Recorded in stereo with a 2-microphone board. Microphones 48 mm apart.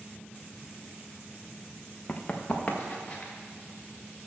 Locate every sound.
2.1 s running footsteps: 25° left (ahead or behind), 1.2 m